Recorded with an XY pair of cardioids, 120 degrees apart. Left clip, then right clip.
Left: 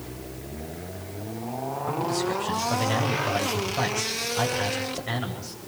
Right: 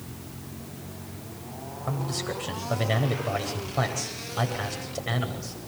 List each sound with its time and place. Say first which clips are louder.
1.9 s a man speaking: left 4 dB; 25° right, 9.5 m